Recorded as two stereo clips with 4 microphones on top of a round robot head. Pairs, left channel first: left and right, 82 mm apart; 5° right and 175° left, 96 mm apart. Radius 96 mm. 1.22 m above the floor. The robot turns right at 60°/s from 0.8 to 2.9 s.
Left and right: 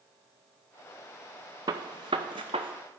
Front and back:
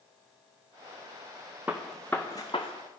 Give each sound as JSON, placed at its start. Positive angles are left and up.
{"t": 1.7, "sound": "a gunshot", "azimuth_deg": -110, "distance_m": 0.5}